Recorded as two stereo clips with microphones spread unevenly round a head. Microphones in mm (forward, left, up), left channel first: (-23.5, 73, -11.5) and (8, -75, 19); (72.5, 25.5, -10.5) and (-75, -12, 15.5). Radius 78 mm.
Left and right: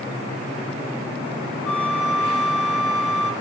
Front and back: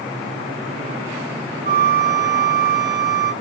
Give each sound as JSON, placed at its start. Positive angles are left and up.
{"t": 1.6, "sound": "a flute", "azimuth_deg": -170, "distance_m": 1.4}